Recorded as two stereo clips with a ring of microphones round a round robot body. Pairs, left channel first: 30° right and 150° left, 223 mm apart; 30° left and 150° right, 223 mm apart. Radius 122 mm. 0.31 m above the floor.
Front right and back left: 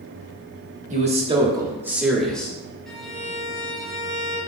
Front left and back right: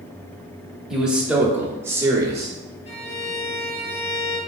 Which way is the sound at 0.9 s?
125° left.